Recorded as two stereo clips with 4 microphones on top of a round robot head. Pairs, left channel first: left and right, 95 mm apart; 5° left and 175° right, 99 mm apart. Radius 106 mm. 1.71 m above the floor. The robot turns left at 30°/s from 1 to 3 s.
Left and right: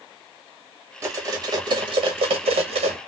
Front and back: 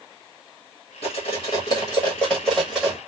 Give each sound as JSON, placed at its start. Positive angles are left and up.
{"t": 1.0, "sound": "cutlery clinking", "azimuth_deg": -35, "distance_m": 1.4}